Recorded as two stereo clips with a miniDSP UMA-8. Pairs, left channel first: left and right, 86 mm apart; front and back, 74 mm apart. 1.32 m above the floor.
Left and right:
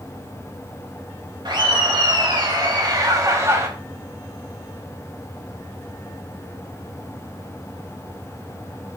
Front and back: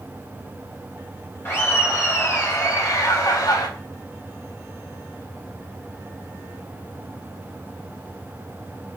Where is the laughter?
55° right, 3 m; by 3.7 s 30° right, 1.6 m.